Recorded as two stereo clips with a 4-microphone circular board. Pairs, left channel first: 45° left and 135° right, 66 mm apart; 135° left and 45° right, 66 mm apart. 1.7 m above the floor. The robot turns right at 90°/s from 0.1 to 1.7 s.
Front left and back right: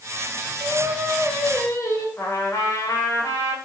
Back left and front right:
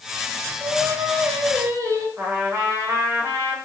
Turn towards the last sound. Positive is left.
turn(degrees=5)